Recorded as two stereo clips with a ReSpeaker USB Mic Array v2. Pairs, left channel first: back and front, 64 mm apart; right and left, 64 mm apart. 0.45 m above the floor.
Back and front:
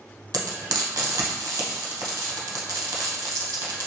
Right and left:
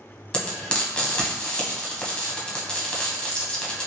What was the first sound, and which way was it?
Frying, 15° right.